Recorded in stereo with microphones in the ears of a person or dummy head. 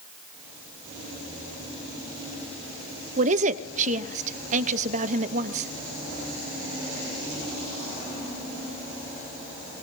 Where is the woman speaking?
40° right (ahead or behind), 0.9 m.